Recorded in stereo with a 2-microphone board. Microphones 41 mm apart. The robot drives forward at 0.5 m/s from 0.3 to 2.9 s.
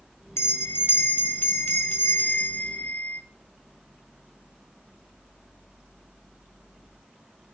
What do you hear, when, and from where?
0.4 s a bell: 80° left, 2 m; by 3.2 s 50° left (ahead or behind), 2.5 m